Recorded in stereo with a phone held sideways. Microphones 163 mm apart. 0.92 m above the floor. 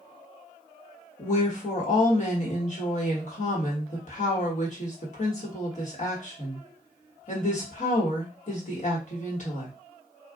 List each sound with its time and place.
1.2 s a woman speaking: 50° left (ahead or behind), 1.4 m